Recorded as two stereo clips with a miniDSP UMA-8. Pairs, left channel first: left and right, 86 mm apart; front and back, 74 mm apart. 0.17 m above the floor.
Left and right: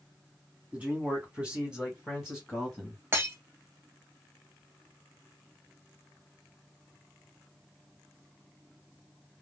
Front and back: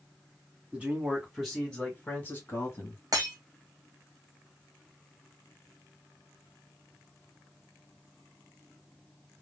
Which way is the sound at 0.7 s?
140° right.